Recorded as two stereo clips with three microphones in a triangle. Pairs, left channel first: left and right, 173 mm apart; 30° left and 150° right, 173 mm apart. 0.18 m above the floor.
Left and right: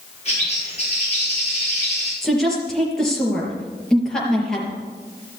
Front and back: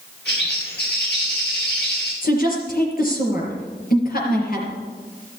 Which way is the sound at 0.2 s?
40° left.